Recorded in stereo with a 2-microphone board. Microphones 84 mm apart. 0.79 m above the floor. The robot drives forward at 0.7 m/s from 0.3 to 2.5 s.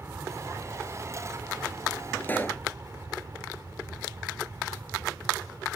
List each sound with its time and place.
0.0 s an aircraft: 30° right (ahead or behind); by 5.8 s 40° right (ahead or behind)
2.2 s a pop: 25° left (ahead or behind)